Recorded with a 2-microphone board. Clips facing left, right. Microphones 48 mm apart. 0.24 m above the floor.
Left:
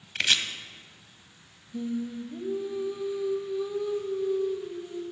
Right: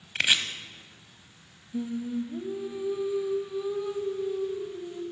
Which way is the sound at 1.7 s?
10° right (ahead or behind).